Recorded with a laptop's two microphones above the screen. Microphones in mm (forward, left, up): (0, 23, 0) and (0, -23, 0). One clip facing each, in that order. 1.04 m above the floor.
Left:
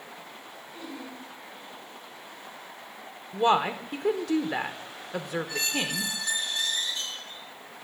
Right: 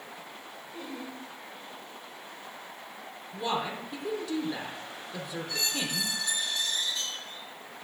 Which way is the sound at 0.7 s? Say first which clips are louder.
Even; 85° right.